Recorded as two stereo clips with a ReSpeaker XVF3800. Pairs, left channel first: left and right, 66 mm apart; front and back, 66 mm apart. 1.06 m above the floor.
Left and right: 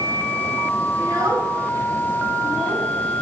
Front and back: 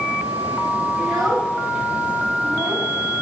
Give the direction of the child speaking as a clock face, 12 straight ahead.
3 o'clock.